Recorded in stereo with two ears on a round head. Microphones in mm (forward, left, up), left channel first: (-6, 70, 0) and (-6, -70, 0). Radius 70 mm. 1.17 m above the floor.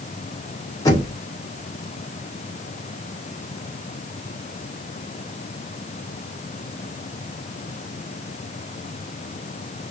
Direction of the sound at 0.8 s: 20° left (ahead or behind).